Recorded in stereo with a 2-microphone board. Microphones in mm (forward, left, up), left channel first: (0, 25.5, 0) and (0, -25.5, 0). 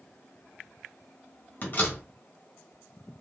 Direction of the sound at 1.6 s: 40° left (ahead or behind).